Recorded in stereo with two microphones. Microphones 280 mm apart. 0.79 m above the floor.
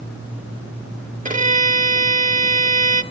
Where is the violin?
25° right (ahead or behind), 0.7 m.